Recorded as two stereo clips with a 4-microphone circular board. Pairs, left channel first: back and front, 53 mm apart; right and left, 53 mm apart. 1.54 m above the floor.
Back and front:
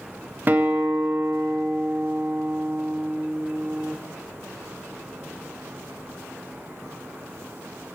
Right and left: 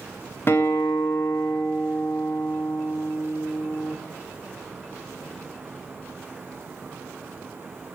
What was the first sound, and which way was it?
A guitar, 50° right.